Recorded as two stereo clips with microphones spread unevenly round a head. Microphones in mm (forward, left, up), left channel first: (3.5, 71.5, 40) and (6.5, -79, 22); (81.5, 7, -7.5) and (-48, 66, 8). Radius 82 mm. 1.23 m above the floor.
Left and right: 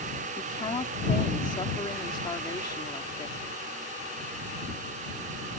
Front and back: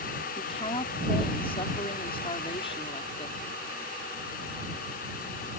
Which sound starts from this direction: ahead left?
A woman speaking, at 0.4 s.